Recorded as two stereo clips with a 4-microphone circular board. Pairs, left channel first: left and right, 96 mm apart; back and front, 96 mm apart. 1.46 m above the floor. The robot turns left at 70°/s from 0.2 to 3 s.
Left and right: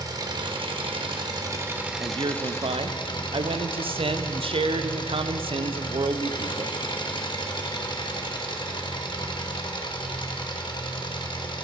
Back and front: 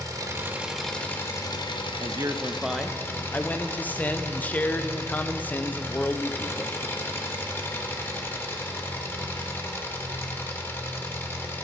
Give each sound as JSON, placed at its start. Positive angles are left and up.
{"t": 0.0, "sound": "an engine running", "azimuth_deg": -50, "distance_m": 1.2}
{"t": 2.0, "sound": "a man speaking", "azimuth_deg": -40, "distance_m": 0.6}